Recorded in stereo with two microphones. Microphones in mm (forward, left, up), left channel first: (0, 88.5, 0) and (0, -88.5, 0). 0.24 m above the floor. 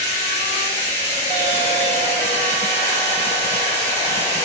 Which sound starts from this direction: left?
Running water, at 0.0 s.